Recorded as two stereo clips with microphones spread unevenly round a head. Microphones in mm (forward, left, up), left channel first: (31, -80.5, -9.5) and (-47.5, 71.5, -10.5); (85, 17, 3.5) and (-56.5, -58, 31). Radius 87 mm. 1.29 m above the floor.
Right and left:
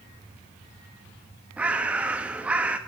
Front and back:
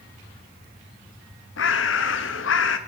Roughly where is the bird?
Ahead left.